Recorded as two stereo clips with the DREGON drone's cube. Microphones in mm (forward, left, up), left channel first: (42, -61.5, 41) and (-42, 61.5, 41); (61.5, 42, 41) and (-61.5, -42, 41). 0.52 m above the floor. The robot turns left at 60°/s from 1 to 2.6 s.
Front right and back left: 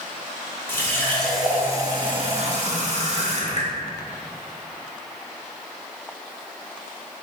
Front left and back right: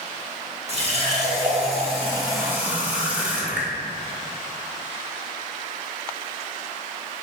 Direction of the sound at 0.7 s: 125° right.